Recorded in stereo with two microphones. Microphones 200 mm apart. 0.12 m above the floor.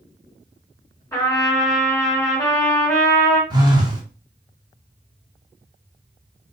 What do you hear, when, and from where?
1.1 s a trumpet: 20° left (ahead or behind), 1.6 m
3.5 s a phone buzzing: 25° right (ahead or behind), 1.0 m